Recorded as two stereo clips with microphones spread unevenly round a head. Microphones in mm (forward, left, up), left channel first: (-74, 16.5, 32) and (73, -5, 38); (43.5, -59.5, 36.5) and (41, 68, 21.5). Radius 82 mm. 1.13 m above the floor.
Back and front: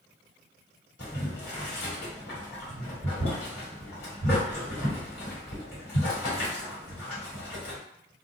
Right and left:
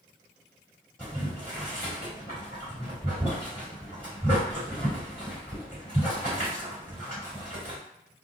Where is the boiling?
175° right, 1.5 m.